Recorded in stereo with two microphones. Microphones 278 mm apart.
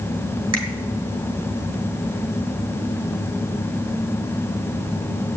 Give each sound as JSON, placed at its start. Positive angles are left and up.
{"t": 0.5, "sound": "a finger snap", "side_deg": -65, "distance_m": 2.5}